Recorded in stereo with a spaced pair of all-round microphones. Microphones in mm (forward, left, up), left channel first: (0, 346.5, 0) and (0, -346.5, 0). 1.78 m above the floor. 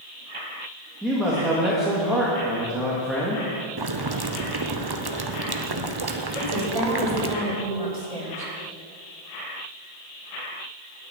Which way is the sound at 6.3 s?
55° right (ahead or behind).